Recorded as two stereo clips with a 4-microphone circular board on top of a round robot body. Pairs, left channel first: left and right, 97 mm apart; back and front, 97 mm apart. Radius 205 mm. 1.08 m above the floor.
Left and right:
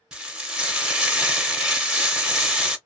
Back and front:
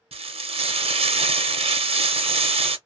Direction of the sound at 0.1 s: 10° right.